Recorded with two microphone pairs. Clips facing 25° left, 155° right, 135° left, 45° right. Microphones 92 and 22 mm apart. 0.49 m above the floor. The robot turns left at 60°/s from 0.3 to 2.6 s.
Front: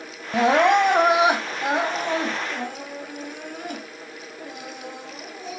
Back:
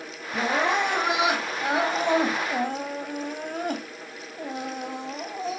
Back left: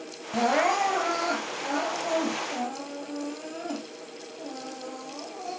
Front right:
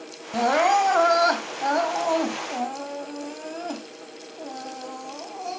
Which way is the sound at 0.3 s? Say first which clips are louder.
Front 7 dB, front right 4 dB; 20° left.